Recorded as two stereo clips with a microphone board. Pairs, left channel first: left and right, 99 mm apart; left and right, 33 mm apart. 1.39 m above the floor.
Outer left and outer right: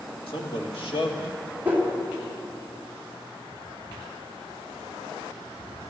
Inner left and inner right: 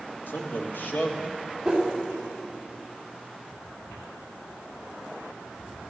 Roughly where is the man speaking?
Left.